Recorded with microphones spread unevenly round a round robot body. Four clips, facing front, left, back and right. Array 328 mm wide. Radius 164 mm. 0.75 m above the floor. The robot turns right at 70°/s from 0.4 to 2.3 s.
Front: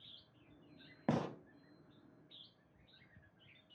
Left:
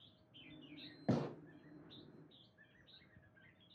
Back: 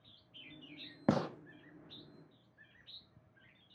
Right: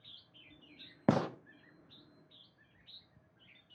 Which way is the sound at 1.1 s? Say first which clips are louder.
Right 8 dB, back 4 dB; 120° right.